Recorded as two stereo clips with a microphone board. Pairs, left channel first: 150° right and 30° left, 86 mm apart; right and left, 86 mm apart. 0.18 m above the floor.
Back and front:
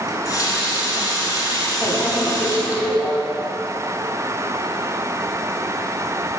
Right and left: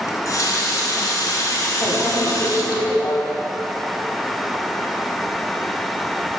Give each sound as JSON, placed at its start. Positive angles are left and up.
{"t": 0.1, "sound": "a running tap", "azimuth_deg": -120, "distance_m": 1.4}
{"t": 1.8, "sound": "a microwave", "azimuth_deg": -115, "distance_m": 1.1}